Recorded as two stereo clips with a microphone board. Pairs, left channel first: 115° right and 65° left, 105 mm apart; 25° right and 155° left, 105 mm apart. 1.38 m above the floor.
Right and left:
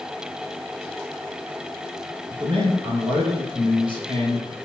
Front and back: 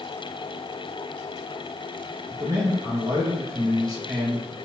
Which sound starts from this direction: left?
A man speaking, at 2.3 s.